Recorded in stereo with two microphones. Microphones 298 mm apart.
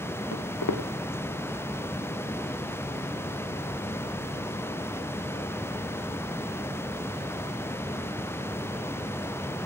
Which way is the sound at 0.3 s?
55° left (ahead or behind).